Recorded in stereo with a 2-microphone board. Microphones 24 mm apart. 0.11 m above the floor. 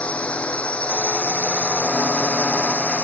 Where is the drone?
65° left (ahead or behind).